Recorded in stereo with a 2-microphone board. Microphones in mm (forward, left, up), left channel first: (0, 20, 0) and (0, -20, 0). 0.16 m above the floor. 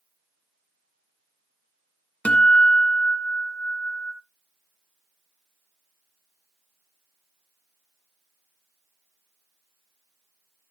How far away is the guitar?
About 1.3 m.